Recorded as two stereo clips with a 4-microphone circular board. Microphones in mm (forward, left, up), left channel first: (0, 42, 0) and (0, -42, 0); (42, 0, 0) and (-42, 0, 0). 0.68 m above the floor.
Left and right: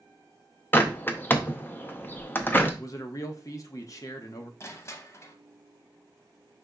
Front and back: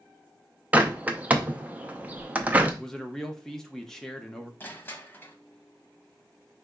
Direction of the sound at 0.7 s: 130° left.